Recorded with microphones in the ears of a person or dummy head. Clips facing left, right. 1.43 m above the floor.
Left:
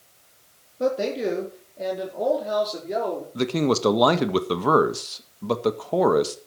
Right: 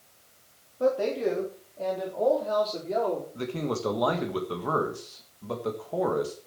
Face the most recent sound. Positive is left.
turn(degrees=80)